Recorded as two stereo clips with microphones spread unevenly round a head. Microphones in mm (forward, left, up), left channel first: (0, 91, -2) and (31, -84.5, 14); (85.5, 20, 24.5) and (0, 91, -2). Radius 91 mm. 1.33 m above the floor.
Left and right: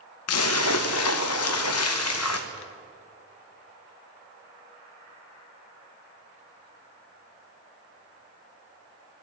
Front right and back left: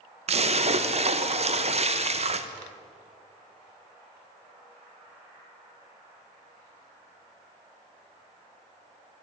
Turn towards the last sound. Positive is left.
turn(degrees=110)